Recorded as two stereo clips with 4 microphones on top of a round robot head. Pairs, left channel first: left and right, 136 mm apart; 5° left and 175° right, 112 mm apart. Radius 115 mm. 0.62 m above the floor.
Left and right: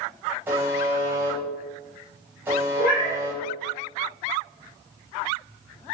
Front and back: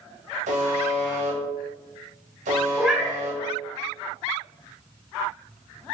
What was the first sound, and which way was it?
A buzzer, 170° right.